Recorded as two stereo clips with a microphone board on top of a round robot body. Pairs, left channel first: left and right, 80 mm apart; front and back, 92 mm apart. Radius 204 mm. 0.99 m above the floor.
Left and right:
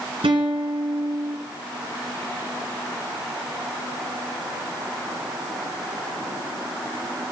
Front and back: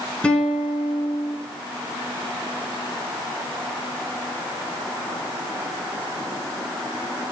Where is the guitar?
80° right, 2.5 m.